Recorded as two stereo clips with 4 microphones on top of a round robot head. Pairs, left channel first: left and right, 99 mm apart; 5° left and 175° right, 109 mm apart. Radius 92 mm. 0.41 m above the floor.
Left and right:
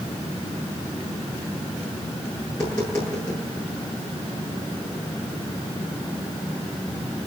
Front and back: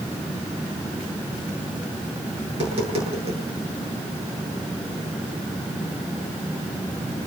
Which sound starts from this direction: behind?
Tapping, at 2.5 s.